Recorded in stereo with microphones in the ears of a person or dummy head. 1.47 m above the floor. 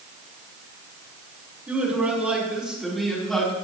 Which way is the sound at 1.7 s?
5° right (ahead or behind).